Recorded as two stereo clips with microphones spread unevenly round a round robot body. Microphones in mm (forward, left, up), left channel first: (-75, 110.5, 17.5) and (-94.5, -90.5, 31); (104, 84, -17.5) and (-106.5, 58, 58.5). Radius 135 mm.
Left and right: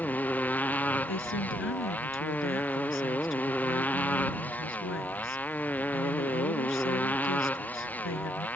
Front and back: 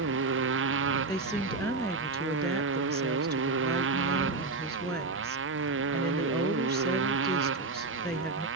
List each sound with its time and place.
0.0 s a motorcycle: 165° left
1.1 s a woman speaking: 85° left